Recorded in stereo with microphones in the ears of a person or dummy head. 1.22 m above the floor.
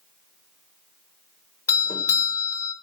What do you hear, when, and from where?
1.7 s a doorbell: 25° left (ahead or behind), 1.6 m